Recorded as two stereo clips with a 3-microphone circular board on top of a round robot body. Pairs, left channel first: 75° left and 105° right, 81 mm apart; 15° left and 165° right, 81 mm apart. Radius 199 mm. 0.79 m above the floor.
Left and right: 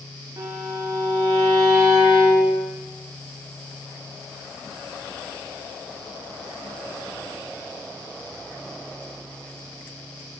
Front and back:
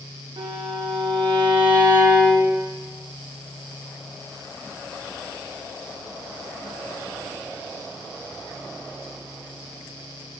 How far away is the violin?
About 1.1 m.